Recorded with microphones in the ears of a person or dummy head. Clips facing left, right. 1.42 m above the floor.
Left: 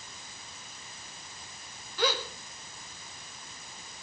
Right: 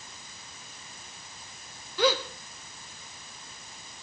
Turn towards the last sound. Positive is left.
turn(degrees=-50)  # may be behind; listen again after turning